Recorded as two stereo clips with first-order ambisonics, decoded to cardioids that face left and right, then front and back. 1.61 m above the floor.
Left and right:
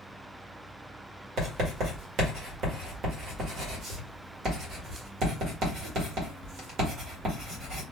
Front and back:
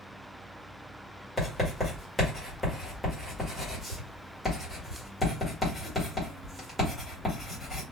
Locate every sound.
1.4 s writing: 85° right, 1.5 m